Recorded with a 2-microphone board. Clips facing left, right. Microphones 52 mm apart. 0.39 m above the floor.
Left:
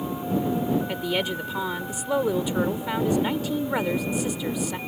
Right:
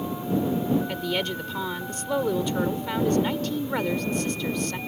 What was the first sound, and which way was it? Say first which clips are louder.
A woman speaking: left 1 dB; 10° left (ahead or behind).